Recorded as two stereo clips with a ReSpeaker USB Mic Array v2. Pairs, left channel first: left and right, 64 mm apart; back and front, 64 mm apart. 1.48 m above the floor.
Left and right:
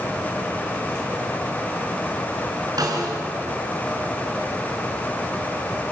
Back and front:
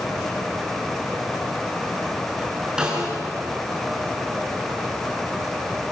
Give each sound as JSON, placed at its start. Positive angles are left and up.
{"t": 2.8, "sound": "a snare drum", "azimuth_deg": -80, "distance_m": 6.0}